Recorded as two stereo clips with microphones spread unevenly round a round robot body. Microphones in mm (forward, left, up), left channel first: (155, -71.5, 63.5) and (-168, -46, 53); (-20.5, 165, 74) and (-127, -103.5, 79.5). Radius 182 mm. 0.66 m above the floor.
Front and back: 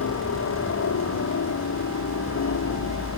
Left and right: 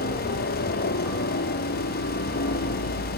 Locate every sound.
0.0 s a helicopter: 25° left